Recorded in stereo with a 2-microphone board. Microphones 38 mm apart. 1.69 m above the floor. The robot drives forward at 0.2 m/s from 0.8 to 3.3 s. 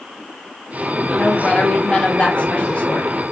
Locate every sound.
1.1 s a woman speaking: 25° left (ahead or behind), 0.8 m; by 3.2 s 35° left (ahead or behind), 0.6 m